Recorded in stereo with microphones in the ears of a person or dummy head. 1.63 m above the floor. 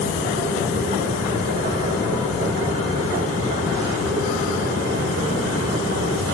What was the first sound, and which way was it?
A machine running, 45° right (ahead or behind).